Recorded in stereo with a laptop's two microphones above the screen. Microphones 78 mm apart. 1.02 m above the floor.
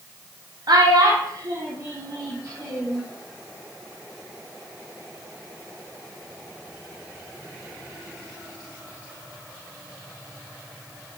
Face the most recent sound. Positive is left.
turn(degrees=-45)  # may be behind; listen again after turning